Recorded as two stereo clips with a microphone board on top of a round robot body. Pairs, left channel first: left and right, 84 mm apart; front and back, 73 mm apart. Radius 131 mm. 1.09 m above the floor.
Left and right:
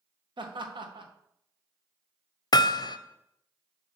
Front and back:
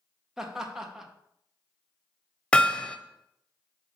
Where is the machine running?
I don't hear a machine running.